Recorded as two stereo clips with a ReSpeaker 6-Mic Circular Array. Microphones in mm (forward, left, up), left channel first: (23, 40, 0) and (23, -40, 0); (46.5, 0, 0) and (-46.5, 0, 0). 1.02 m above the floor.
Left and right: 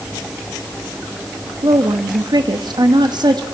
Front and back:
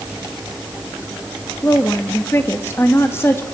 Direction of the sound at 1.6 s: 60° right.